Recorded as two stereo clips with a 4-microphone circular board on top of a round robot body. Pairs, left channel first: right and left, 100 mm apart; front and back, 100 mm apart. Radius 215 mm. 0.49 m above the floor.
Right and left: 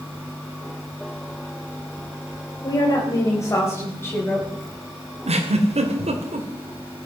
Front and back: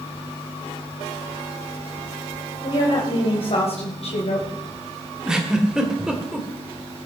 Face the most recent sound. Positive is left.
turn(degrees=95)